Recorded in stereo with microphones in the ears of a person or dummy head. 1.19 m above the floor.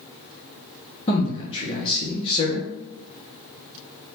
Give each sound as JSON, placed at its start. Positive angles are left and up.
{"t": 1.1, "sound": "a man speaking", "side_deg": 30, "distance_m": 1.6}